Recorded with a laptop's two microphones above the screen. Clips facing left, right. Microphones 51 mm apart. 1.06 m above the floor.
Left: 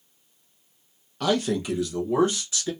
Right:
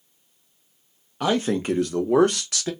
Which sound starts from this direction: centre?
A man speaking, at 1.2 s.